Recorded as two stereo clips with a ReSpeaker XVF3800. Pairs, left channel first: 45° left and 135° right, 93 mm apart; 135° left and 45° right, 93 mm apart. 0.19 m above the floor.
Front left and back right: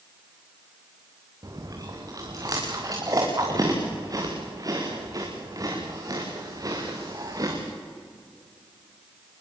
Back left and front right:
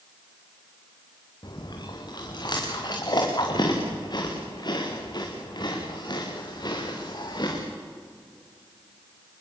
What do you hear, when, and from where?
1.4 s chewing: 175° left, 5 m